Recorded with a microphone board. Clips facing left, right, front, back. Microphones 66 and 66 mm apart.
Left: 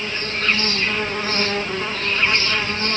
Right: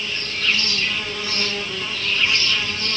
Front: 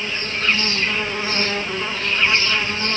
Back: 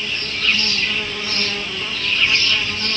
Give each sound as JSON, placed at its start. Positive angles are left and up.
{"t": 0.0, "sound": "an insect", "azimuth_deg": 50, "distance_m": 0.9}